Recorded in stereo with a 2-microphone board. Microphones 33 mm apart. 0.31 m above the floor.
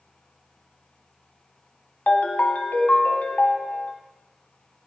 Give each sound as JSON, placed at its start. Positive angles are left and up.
{"t": 2.1, "sound": "a ringtone", "side_deg": 60, "distance_m": 0.7}